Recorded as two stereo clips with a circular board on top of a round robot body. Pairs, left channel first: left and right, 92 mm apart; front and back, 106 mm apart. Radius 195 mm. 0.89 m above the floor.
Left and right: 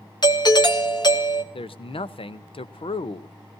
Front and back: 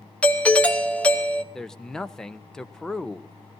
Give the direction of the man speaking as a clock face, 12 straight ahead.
9 o'clock.